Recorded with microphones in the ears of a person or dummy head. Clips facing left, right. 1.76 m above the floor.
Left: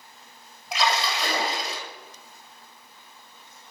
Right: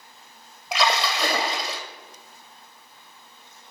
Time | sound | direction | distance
0.7 | a splash | 60° right (ahead or behind) | 1.2 m